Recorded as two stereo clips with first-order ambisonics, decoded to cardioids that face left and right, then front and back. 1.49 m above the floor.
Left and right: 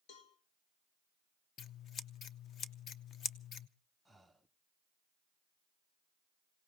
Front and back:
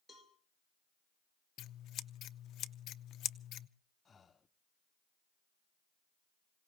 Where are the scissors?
40° left, 0.7 m.